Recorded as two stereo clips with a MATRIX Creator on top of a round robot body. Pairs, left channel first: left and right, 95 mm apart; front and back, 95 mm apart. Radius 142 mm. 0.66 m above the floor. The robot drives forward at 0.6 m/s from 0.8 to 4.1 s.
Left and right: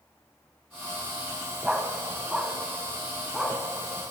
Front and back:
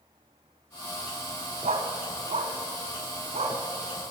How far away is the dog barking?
About 2 m.